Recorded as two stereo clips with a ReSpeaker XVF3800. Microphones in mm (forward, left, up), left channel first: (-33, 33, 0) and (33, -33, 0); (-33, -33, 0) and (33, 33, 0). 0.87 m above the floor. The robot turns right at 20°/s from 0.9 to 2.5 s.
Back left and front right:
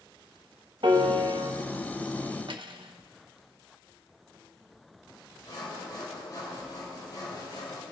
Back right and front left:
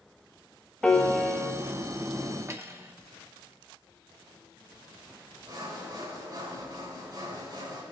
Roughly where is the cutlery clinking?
Ahead.